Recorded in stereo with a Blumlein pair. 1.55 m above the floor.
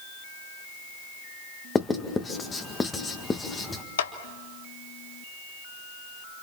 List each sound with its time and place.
1.8 s writing: 15° left, 2.0 m
4.0 s a clap: 60° left, 1.4 m